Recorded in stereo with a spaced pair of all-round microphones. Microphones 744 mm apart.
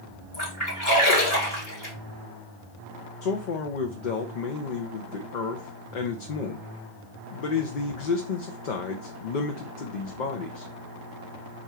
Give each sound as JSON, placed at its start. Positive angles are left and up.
{"t": 0.3, "sound": "a splash", "side_deg": 55, "distance_m": 3.0}
{"t": 3.2, "sound": "a man speaking", "side_deg": 80, "distance_m": 0.8}